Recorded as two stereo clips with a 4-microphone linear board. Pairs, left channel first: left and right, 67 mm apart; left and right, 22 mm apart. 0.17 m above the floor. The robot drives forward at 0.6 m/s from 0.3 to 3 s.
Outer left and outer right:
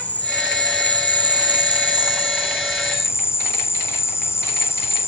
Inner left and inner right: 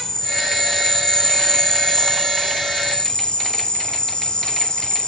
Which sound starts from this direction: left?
An insect, at 0.0 s.